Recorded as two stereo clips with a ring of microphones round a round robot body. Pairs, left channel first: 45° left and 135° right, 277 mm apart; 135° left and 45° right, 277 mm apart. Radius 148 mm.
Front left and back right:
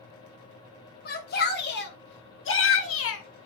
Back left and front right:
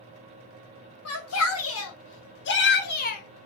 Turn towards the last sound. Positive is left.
turn(degrees=75)